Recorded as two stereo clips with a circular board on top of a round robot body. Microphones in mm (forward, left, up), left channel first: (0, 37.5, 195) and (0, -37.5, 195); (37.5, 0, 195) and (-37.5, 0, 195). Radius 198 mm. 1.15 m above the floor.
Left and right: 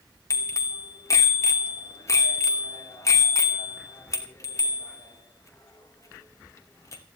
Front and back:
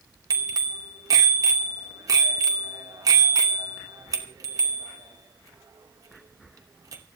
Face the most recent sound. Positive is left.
turn(degrees=140)